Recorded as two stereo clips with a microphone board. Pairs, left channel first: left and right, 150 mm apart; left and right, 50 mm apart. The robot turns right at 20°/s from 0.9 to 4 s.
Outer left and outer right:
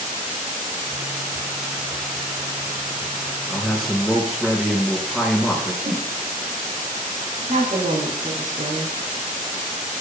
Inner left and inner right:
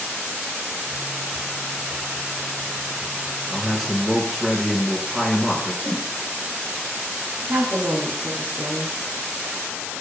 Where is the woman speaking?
55° right (ahead or behind), 3 m.